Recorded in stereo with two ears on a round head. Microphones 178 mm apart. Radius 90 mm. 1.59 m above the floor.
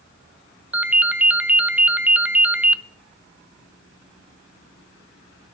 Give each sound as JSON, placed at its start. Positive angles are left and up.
{"t": 0.7, "sound": "a ringtone", "side_deg": -10, "distance_m": 0.7}